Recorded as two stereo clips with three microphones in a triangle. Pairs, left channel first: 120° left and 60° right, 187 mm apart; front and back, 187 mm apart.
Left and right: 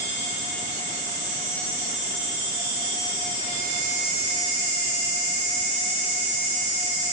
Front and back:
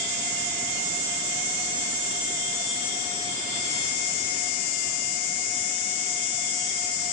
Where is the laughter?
No laughter in this recording.